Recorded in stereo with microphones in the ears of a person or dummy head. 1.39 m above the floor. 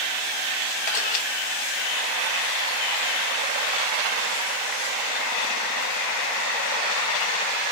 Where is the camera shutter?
45° left (ahead or behind), 1.0 m.